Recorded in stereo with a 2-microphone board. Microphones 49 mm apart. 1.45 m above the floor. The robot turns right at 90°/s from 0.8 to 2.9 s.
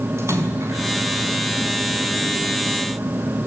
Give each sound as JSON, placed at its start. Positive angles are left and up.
{"t": 0.2, "sound": "a splash", "side_deg": -70, "distance_m": 5.0}